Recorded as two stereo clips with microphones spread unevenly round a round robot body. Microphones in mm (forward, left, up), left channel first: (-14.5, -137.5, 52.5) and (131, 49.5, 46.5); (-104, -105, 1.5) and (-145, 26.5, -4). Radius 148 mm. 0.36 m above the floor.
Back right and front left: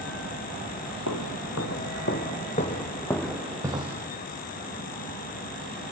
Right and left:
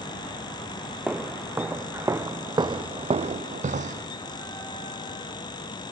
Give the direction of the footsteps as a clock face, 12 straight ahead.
6 o'clock.